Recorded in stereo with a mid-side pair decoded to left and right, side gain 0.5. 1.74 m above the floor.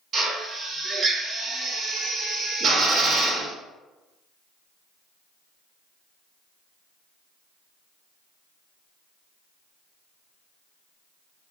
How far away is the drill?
About 1.4 m.